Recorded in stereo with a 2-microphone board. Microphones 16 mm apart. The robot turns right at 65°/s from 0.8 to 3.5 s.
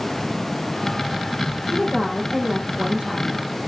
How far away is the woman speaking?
About 9 m.